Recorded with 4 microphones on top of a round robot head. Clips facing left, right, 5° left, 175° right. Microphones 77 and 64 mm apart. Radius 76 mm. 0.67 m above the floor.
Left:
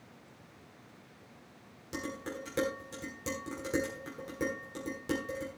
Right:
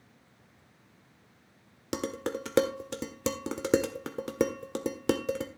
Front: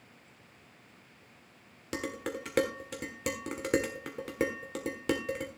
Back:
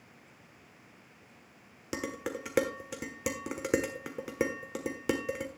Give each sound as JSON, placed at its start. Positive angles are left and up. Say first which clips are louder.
{"t": 1.9, "sound": "dishes clattering", "louder": "right 6 dB, even", "azimuth_deg": -90, "distance_m": 1.5}